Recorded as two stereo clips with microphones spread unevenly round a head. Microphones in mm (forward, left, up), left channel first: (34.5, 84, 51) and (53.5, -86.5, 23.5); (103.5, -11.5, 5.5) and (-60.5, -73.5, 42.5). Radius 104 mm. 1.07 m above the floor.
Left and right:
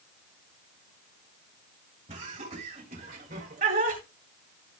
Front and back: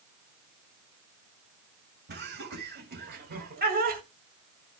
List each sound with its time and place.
2.1 s laughter: 140° right, 4.5 m; by 4.0 s 125° right, 3.5 m